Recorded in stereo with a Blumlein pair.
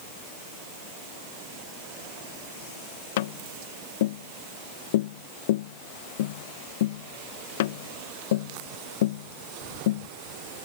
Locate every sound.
3.2 s tapping: 55° left